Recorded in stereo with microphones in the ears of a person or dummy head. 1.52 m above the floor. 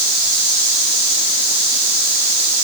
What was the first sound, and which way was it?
Only background noise.